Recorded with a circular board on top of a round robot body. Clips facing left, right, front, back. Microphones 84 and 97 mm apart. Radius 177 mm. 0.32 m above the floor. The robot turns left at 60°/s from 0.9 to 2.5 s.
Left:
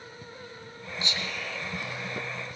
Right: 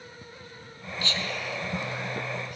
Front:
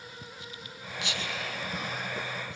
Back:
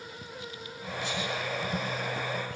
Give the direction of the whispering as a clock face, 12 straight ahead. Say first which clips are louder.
Right 3 dB, back 3 dB; 11 o'clock.